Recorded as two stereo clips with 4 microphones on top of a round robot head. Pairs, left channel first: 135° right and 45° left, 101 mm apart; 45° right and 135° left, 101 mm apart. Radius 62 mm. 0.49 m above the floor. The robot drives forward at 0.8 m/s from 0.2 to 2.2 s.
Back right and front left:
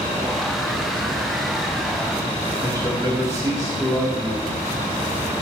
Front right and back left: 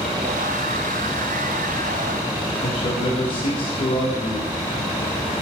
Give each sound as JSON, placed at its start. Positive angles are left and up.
{"t": 2.6, "sound": "a man speaking", "azimuth_deg": -75, "distance_m": 1.9}